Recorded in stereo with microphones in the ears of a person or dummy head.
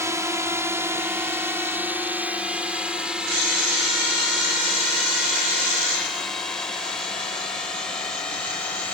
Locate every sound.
0.0 s a drone: 20° right (ahead or behind); by 8.9 s 5° left (ahead or behind)